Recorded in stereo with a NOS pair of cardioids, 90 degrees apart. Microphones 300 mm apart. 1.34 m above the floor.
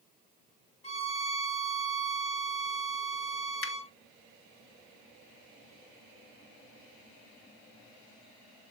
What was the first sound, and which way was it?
A violin, 20° left.